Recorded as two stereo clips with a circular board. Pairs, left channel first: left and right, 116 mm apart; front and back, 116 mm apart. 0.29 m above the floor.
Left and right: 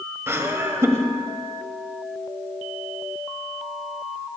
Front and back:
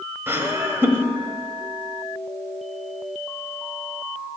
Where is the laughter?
130° right, 1.2 m.